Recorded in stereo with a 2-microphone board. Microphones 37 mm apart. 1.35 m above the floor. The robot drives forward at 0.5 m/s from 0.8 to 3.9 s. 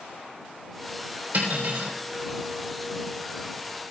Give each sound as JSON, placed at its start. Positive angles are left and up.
{"t": 1.3, "sound": "cutlery clinking", "side_deg": -65, "distance_m": 3.0}